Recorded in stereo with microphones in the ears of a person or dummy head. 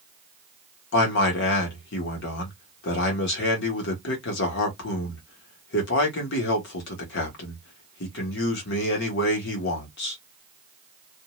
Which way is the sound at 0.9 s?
70° left (ahead or behind).